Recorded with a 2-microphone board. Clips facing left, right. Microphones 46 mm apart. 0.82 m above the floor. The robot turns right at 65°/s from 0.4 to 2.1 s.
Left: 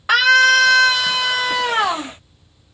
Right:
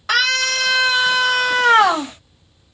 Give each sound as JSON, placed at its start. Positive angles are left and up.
{"t": 0.1, "sound": "a scream", "azimuth_deg": 165, "distance_m": 1.5}